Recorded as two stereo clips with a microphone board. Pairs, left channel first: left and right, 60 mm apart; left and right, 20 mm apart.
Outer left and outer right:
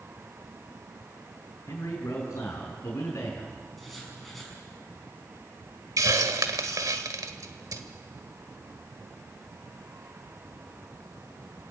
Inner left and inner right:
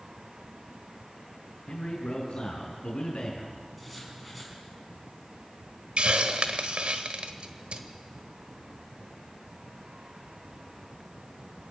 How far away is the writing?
About 6 m.